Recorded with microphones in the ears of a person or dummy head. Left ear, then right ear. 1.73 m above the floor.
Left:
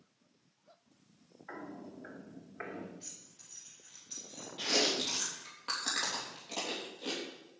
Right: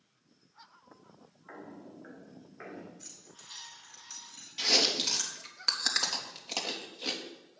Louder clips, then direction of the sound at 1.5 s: Left 2 dB; 15° left (ahead or behind).